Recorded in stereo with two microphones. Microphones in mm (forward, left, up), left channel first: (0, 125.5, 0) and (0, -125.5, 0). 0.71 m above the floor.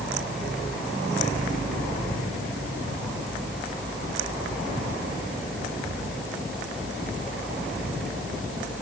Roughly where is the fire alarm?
No fire alarm in this recording.